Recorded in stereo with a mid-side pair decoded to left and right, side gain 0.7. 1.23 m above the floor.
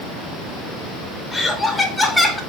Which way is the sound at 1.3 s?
10° left.